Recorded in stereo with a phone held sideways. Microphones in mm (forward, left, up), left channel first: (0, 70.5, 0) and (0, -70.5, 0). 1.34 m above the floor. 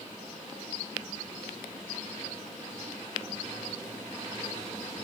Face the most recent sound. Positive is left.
No sound to turn to.